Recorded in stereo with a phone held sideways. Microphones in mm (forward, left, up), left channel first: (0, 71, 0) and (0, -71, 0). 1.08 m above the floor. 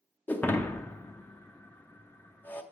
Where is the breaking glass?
15° left (ahead or behind), 0.6 m.